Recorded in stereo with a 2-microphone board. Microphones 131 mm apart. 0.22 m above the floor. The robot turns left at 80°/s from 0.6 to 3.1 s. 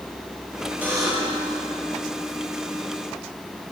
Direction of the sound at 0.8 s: 10° right.